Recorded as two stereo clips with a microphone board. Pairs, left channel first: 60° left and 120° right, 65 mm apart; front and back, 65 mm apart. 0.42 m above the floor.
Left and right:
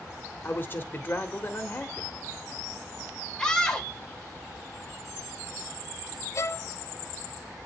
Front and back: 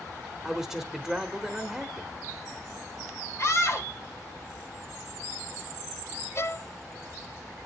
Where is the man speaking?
100° left, 1.1 m.